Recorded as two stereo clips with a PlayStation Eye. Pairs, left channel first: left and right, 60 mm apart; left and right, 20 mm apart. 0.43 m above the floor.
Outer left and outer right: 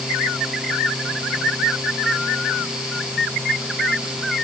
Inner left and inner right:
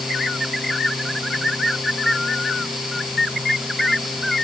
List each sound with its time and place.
Only background noise.